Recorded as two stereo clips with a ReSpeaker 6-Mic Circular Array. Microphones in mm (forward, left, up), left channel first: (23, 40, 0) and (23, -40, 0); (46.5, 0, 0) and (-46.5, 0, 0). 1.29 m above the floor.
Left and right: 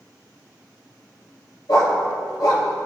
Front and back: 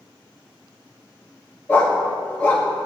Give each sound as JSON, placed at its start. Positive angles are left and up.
{"t": 1.7, "sound": "a dog barking", "azimuth_deg": 70, "distance_m": 2.5}